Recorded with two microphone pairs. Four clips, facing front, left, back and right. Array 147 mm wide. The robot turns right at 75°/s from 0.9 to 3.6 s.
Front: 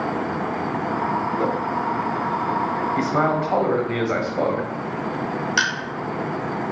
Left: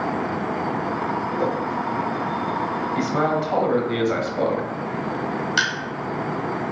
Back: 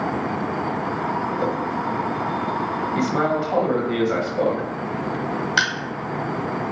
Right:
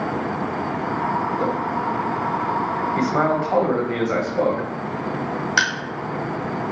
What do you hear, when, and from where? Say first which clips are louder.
1.4 s a whoosh: even, front 1 dB; 15° right, 2 m; by 1.6 s 5° right, 2 m
3.0 s a man speaking: right 2 dB, even; 70° right, 0.9 m; by 4.7 s 25° right, 0.9 m
5.6 s crushing: right 3 dB, even; 120° right, 1.6 m